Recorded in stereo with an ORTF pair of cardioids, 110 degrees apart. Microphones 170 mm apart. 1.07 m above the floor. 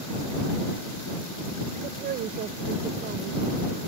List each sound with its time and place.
1.8 s a woman speaking: 65° right